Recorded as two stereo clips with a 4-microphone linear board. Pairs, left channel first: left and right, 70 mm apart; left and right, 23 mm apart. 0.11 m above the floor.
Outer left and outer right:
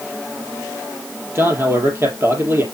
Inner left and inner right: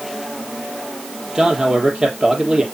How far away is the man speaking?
About 3.5 m.